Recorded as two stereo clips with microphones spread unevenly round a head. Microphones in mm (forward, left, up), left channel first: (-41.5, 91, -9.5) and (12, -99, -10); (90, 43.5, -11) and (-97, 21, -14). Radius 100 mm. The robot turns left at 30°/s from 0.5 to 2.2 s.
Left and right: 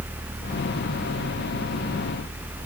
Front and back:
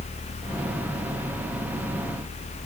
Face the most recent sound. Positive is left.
No sound to turn to.